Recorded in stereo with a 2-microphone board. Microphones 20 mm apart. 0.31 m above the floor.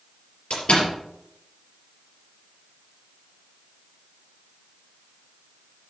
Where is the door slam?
65° left (ahead or behind), 4.5 m.